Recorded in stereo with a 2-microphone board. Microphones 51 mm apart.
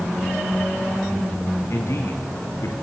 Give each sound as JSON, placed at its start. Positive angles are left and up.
{"t": 1.7, "sound": "a man speaking", "side_deg": 65, "distance_m": 6.0}